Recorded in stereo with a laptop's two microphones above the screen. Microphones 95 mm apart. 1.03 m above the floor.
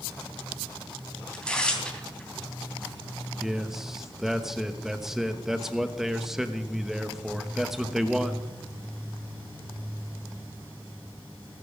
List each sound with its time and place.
1.3 s tearing paper: 10° left (ahead or behind), 3 m
3.4 s a man speaking: 5° right (ahead or behind), 1.0 m